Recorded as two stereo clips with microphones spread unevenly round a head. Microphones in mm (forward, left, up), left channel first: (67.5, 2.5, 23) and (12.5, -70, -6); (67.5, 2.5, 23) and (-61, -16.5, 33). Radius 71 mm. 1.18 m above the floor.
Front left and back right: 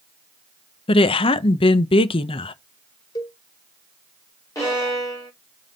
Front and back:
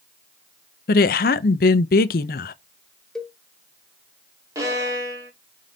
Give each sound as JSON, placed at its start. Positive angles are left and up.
{"t": 0.9, "sound": "a woman speaking", "azimuth_deg": 30, "distance_m": 0.6}
{"t": 3.1, "sound": "a cowbell", "azimuth_deg": 95, "distance_m": 0.5}
{"t": 4.5, "sound": "a violin", "azimuth_deg": 120, "distance_m": 1.8}